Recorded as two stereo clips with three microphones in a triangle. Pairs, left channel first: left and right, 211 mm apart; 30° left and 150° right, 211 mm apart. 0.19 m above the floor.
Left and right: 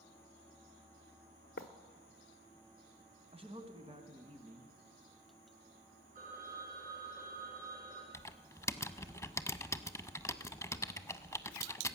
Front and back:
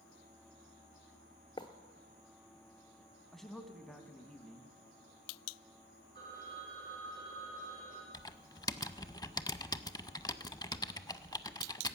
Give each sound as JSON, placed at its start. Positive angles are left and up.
{"t": 1.6, "sound": "writing", "azimuth_deg": 95, "distance_m": 0.7}
{"t": 3.3, "sound": "a man speaking", "azimuth_deg": -60, "distance_m": 1.3}
{"t": 6.2, "sound": "a phone ringing", "azimuth_deg": -40, "distance_m": 5.5}
{"t": 8.1, "sound": "typing on a keyboard", "azimuth_deg": 45, "distance_m": 0.5}